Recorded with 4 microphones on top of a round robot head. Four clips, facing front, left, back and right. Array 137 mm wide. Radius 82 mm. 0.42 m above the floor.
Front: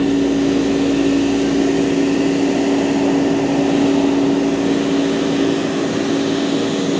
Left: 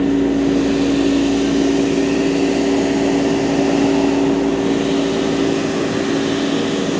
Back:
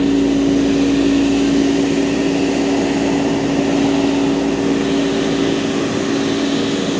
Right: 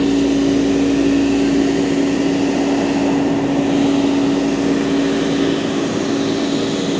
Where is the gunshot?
I don't hear a gunshot.